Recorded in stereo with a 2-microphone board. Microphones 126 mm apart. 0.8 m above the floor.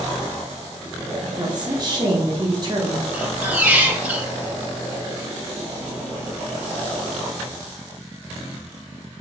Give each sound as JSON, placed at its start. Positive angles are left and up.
{"t": 1.2, "sound": "a woman speaking", "side_deg": -35, "distance_m": 1.1}
{"t": 3.1, "sound": "a squeak", "side_deg": -15, "distance_m": 0.6}